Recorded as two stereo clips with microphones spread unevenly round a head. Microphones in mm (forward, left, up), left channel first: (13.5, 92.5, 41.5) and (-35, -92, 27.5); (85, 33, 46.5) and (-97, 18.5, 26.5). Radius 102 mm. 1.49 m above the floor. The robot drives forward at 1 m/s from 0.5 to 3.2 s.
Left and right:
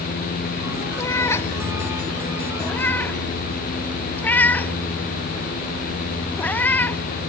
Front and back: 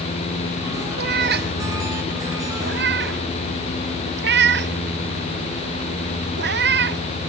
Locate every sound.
1.0 s a cat meowing: 150° left; by 7.0 s 155° left